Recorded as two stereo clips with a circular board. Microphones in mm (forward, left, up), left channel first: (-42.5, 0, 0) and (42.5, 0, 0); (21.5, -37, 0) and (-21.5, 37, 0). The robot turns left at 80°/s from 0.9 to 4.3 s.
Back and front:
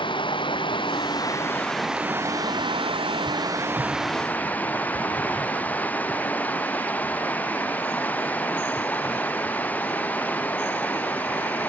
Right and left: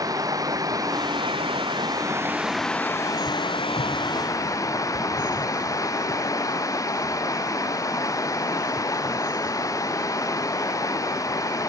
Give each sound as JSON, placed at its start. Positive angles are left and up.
{"t": 0.0, "sound": "running water", "azimuth_deg": 165}